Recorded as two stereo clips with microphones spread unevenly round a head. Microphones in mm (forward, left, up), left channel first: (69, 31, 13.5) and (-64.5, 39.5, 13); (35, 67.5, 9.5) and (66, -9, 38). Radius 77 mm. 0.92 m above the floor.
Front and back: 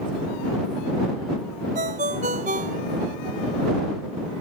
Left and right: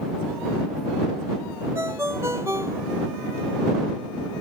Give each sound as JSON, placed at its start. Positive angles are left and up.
{"t": 1.8, "sound": "a ringtone", "azimuth_deg": -140}